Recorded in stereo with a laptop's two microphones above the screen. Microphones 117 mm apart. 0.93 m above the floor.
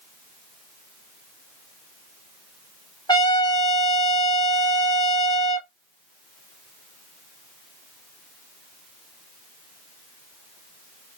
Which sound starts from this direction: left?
A trumpet, at 3.1 s.